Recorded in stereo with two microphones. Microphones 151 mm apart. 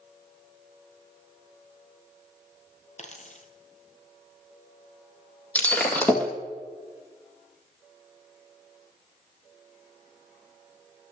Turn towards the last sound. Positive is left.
turn(degrees=10)  # may be behind; listen again after turning